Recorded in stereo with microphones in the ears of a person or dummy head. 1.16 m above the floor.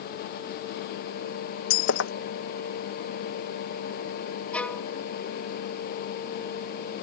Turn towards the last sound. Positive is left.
turn(degrees=5)  # may be behind; listen again after turning